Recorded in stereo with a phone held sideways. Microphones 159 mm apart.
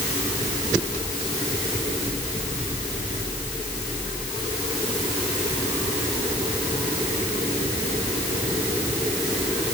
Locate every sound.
Only background noise.